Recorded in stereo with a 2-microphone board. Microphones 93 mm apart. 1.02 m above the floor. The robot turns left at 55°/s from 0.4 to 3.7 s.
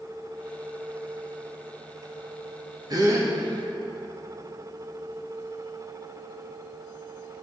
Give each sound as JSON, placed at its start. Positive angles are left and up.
{"t": 2.9, "sound": "a gasp", "side_deg": -45, "distance_m": 1.2}